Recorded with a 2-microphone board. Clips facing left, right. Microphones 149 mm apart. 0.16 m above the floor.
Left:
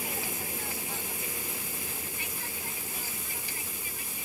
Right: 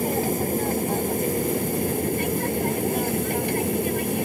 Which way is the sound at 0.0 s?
50° right (ahead or behind).